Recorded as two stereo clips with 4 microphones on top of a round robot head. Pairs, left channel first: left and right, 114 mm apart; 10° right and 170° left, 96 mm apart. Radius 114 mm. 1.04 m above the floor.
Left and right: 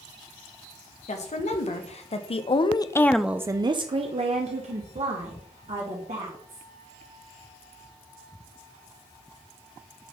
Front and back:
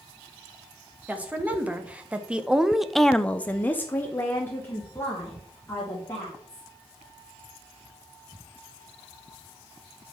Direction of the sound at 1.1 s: 95° left.